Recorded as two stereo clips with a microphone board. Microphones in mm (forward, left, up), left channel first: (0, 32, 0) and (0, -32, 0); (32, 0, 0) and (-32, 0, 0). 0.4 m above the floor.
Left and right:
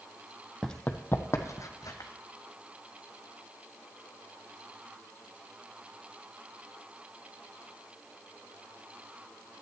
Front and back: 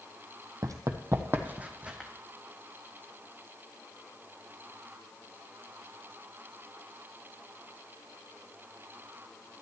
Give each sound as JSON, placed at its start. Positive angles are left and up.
{"t": 0.6, "sound": "running footsteps", "azimuth_deg": 175, "distance_m": 0.8}